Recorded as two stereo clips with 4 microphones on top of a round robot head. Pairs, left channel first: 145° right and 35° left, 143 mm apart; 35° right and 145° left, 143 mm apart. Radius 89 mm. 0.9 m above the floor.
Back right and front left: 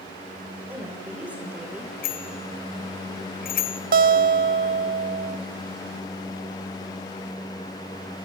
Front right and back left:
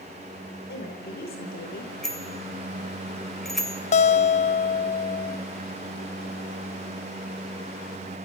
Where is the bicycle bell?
120° right, 2.5 m.